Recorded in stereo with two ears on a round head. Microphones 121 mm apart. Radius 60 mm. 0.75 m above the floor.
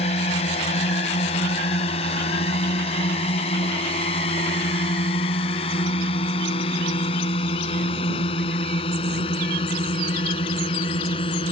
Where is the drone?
45° left (ahead or behind); by 11.5 s 40° left (ahead or behind).